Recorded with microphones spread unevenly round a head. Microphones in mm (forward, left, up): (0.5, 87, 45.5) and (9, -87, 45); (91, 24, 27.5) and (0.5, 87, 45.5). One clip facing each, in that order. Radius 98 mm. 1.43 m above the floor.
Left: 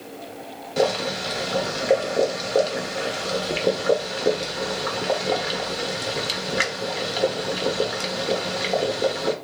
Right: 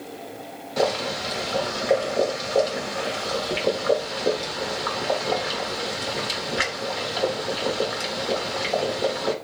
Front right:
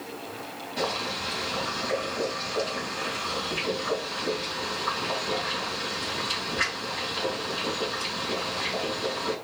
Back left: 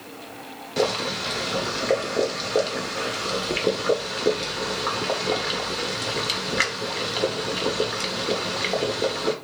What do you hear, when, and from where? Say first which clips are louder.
0.8 s boiling: left 2 dB, back left 7 dB; 150° left, 1.2 m